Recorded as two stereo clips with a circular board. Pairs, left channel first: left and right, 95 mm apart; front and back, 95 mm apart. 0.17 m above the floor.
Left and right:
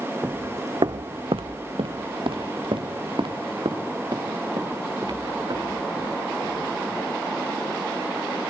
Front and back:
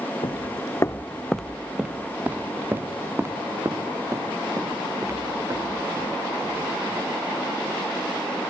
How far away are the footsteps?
About 0.6 m.